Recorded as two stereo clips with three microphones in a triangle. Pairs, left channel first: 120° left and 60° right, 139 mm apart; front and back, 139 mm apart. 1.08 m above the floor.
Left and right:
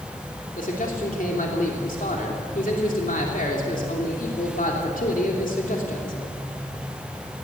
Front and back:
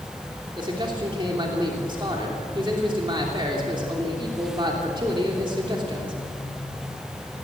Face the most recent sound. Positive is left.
turn(degrees=125)